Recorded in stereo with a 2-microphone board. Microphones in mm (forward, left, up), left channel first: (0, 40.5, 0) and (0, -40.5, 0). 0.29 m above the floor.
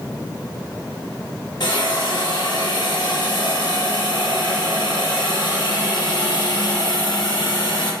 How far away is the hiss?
About 1.3 m.